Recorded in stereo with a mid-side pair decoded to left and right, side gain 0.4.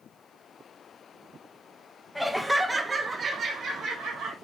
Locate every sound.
2.1 s laughter: straight ahead, 0.8 m; by 4.3 s 80° right, 1.1 m